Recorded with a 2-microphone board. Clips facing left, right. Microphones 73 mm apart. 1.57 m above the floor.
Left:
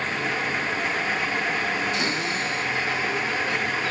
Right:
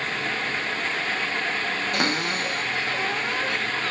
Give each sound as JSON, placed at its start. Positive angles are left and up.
{"t": 1.9, "sound": "a cupboard door", "side_deg": -55, "distance_m": 1.5}